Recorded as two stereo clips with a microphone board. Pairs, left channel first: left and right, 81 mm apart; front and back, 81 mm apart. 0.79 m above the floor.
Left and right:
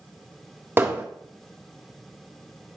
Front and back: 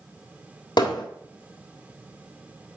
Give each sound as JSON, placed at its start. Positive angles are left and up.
{"t": 0.8, "sound": "hammering", "azimuth_deg": -25, "distance_m": 1.8}